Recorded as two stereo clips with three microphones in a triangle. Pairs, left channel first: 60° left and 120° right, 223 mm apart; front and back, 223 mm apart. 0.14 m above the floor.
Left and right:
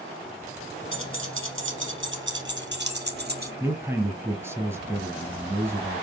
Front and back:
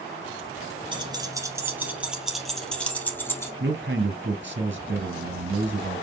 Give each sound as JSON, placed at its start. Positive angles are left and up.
{"t": 0.9, "sound": "keys jangling", "azimuth_deg": -115, "distance_m": 1.8}
{"t": 3.6, "sound": "a man speaking", "azimuth_deg": 165, "distance_m": 1.9}